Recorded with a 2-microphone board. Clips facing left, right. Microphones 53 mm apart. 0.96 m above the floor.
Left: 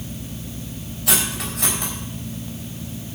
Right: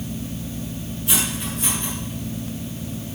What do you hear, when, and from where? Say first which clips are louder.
1.1 s cutlery clinking: left 2 dB; 75° left (ahead or behind), 4 m